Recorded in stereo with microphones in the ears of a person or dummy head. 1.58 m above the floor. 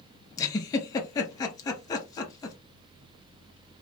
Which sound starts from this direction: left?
A giggle, at 0.4 s.